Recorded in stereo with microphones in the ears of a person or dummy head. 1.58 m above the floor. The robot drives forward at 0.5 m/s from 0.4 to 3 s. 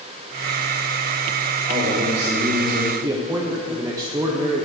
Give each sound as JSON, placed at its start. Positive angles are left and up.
{"t": 1.7, "sound": "a man speaking", "side_deg": -45, "distance_m": 2.5}
{"t": 3.0, "sound": "a man speaking", "side_deg": -25, "distance_m": 0.6}